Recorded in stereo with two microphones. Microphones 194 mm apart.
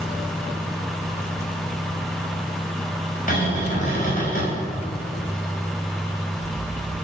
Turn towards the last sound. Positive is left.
turn(degrees=40)  # may be behind; listen again after turning